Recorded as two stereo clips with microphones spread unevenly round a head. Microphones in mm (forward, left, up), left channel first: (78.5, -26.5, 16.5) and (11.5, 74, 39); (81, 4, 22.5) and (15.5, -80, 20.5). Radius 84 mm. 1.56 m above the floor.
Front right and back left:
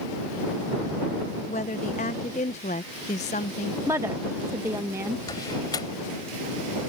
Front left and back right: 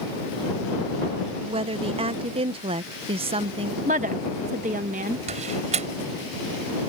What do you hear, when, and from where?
1.5 s a woman speaking: 100° right
3.9 s a woman speaking: 165° right
5.3 s a door slam: 130° right